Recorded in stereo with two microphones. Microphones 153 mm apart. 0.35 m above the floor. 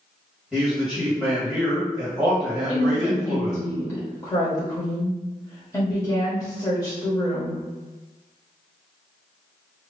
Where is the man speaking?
5° right (ahead or behind), 1.7 m.